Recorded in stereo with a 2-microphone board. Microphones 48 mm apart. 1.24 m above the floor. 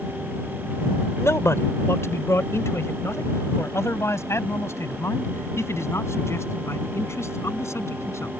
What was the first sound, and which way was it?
A man speaking, 90° left.